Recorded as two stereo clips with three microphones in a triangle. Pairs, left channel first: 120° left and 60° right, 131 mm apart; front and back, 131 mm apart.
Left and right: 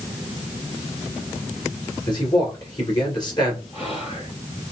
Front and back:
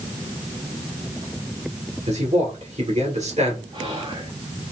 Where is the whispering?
140° left, 2.5 m.